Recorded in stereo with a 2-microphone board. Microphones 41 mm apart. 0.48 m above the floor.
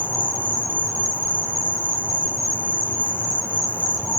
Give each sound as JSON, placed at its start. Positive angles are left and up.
{"t": 0.0, "sound": "an insect", "side_deg": 70, "distance_m": 2.5}